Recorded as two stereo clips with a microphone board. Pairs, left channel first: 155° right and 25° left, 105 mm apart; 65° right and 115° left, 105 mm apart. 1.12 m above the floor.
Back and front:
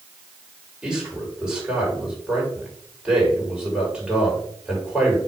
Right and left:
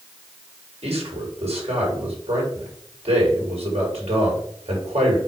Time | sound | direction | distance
0.8 | a man speaking | 105° left | 5.5 m